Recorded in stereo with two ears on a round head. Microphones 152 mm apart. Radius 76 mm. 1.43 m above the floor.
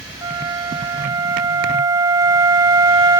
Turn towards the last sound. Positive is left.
turn(degrees=-20)  # may be behind; listen again after turning